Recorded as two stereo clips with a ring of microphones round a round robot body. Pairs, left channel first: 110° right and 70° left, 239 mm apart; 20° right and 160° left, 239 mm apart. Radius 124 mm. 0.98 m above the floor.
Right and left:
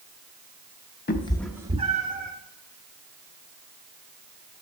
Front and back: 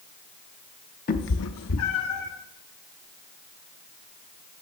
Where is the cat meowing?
70° right, 0.6 m; by 2.3 s 15° left, 1.3 m.